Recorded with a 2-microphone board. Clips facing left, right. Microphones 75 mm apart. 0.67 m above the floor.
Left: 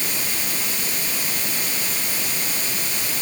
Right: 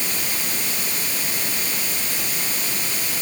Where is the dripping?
I don't hear dripping.